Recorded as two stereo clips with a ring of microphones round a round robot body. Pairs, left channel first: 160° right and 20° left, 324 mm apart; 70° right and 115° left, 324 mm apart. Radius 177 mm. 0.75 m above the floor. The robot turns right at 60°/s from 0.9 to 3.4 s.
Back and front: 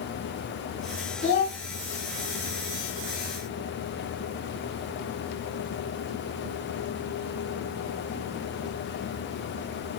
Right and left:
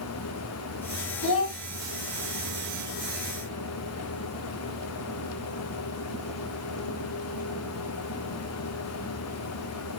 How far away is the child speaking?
About 1.6 m.